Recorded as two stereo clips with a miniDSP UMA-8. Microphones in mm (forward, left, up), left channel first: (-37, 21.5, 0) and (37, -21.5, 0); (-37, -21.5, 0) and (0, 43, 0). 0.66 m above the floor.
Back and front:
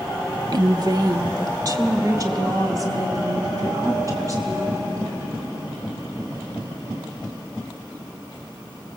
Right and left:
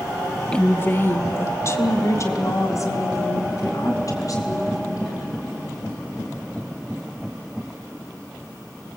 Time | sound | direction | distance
0.5 | a woman speaking | 45° right | 0.7 m